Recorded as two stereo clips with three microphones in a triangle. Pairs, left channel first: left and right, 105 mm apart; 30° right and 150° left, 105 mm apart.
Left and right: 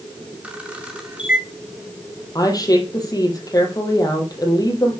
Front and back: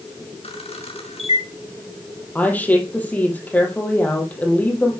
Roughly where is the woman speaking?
Ahead left.